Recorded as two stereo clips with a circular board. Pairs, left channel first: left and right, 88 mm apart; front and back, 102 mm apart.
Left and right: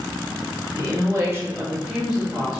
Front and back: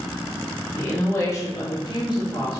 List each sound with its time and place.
0.8 s a woman speaking: 70° right, 1.1 m; by 2.6 s 5° left, 1.2 m